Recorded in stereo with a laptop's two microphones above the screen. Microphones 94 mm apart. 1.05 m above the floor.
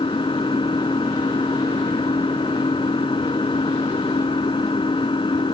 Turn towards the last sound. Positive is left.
turn(degrees=65)  # may be behind; listen again after turning